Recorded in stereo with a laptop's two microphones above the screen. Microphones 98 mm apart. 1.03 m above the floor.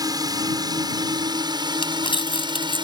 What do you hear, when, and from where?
0.0 s a drone: 40° right (ahead or behind); by 2.8 s 55° right (ahead or behind)
1.8 s crumpling: 60° left (ahead or behind)